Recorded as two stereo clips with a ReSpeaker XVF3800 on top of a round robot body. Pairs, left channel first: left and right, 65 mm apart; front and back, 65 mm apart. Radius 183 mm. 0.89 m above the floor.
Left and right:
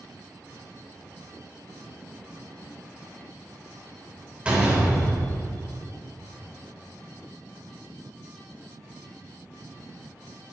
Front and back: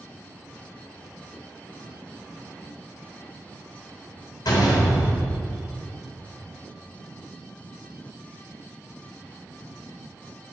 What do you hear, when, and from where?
4.5 s a door slam: 15° right, 2.5 m